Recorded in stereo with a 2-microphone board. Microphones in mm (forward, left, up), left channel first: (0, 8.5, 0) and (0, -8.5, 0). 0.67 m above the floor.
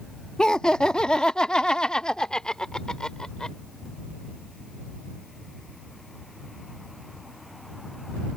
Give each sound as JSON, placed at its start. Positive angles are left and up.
{"t": 0.4, "sound": "laughter", "side_deg": 45}